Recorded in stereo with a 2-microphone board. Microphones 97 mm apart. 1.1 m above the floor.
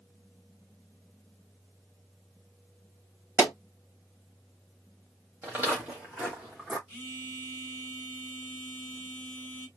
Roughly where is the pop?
Right.